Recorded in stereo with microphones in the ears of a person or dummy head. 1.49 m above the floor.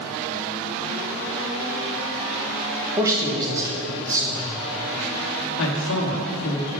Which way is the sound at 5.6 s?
65° left (ahead or behind).